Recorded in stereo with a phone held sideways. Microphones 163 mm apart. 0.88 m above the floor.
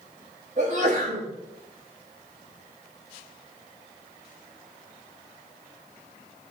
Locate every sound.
0.6 s a sneeze: 50° right (ahead or behind), 5.5 m